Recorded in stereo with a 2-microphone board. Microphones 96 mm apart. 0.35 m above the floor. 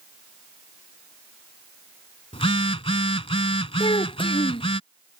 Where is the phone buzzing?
85° left.